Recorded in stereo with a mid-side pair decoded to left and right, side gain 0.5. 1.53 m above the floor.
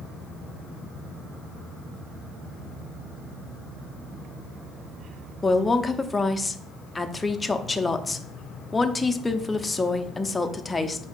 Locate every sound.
5.4 s a woman speaking: 15° left, 0.5 m